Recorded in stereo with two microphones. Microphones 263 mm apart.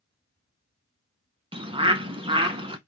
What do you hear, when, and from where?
1.5 s a bird: 20° right (ahead or behind), 0.5 m